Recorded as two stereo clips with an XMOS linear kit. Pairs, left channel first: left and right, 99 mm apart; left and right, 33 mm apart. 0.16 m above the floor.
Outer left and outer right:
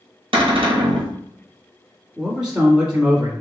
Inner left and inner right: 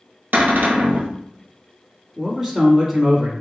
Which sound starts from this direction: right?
A cupboard door, at 0.3 s.